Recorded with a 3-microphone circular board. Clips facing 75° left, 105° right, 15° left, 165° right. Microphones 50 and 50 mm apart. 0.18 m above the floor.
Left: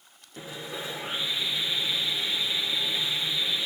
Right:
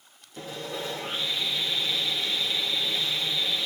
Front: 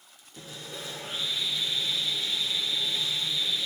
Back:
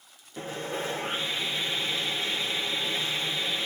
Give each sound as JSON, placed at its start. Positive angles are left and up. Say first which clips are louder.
{"t": 0.4, "sound": "sawing", "louder": "right 2 dB, back 9 dB", "azimuth_deg": 145, "distance_m": 2.5}